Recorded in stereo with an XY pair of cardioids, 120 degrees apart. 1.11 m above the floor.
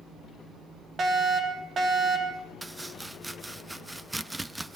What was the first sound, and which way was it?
A fire alarm, 40° right.